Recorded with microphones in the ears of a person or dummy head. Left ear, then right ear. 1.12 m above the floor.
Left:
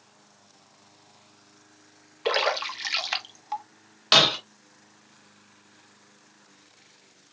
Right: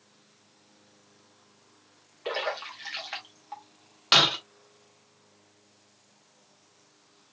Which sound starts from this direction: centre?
Breaking glass, at 4.1 s.